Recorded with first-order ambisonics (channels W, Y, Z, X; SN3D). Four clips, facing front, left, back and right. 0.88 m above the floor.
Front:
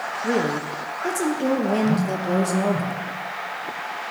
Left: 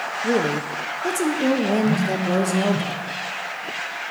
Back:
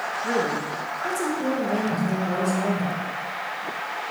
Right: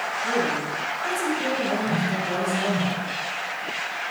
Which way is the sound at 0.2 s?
60° left.